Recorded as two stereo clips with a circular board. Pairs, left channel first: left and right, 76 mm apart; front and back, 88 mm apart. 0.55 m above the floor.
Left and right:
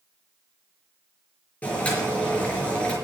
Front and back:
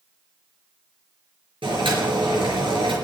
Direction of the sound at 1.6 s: 160° left.